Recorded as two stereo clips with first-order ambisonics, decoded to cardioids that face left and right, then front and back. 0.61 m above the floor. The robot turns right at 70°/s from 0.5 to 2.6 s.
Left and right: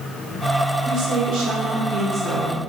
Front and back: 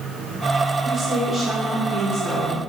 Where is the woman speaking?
120° right, 0.9 m; by 2.6 s straight ahead, 0.9 m.